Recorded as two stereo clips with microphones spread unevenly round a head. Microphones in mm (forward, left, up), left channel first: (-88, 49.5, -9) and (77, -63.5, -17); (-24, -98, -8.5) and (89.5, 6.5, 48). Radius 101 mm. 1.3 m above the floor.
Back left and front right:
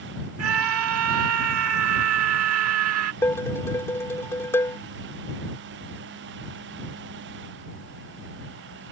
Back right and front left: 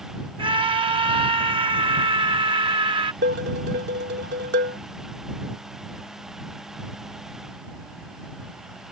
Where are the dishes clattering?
70° left.